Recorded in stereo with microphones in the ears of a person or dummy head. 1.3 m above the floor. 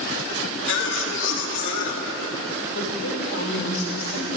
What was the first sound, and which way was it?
A cough, 60° left (ahead or behind).